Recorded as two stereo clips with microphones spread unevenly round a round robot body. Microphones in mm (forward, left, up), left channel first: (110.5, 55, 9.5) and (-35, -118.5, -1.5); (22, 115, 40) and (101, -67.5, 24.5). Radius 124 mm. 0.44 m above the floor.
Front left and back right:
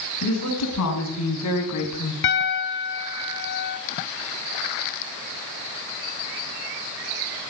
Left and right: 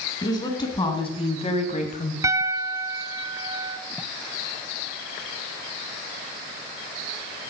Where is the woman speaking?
40° left, 4.5 m; by 2.1 s 65° left, 2 m.